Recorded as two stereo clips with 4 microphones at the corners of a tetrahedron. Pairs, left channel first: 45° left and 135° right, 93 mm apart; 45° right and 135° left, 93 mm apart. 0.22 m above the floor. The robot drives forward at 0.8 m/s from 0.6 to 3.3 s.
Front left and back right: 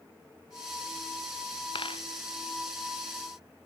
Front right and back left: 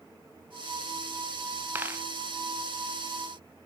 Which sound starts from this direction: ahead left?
A dropped coin, at 1.8 s.